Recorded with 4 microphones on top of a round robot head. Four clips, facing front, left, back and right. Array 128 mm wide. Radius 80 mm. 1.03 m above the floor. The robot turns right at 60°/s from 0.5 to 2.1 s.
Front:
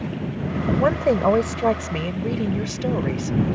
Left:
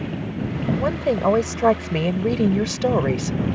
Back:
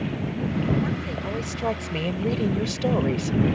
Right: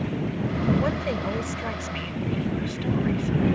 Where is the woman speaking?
15° left; by 3.4 s 90° left.